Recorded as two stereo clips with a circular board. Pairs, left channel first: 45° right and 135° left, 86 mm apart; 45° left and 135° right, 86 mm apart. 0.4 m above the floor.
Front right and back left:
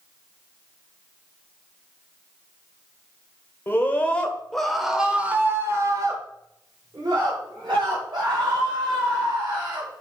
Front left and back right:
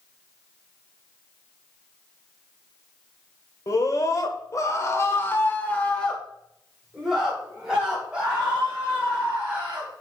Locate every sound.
3.7 s a scream: 10° left, 1.6 m; by 9.9 s 150° left, 3.5 m